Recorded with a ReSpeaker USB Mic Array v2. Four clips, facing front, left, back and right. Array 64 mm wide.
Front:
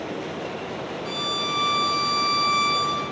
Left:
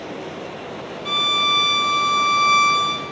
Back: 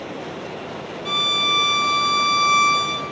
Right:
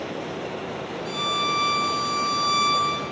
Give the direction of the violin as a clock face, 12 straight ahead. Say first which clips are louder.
Left 5 dB, back 7 dB; 8 o'clock.